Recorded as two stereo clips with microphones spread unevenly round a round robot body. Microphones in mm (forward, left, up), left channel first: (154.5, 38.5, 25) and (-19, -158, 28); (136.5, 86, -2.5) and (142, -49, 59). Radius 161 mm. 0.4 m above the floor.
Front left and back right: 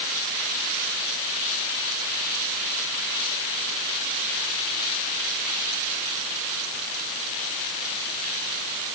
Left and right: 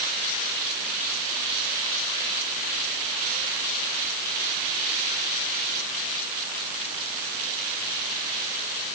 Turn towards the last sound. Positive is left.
No sound to turn to.